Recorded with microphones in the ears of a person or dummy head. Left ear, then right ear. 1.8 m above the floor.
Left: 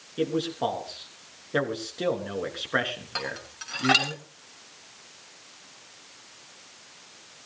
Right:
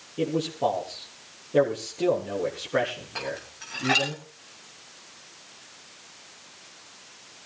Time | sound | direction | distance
0.2 | a man speaking | 45° left (ahead or behind) | 3.5 m
3.1 | dishes clattering | 75° left (ahead or behind) | 7 m